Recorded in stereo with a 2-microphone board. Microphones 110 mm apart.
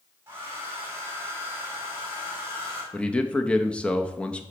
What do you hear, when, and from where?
0.3 s a hair dryer: 25° right (ahead or behind), 3 m
2.9 s a man speaking: 10° left (ahead or behind), 0.7 m